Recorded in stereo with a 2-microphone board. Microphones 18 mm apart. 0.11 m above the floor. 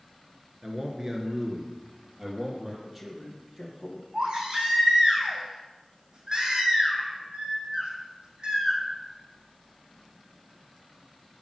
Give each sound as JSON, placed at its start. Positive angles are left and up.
{"t": 0.6, "sound": "a man speaking", "side_deg": -30, "distance_m": 1.6}
{"t": 2.8, "sound": "a man speaking", "side_deg": -20, "distance_m": 3.5}
{"t": 4.1, "sound": "a baby crying", "side_deg": -65, "distance_m": 4.0}